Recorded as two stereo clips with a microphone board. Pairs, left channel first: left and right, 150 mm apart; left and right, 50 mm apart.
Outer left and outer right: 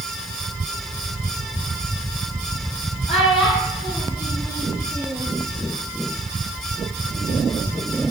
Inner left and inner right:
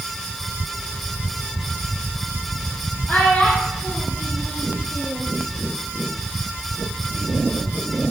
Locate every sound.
3.1 s a child speaking: 40° left (ahead or behind), 2.5 m; by 5.3 s 15° left (ahead or behind), 3 m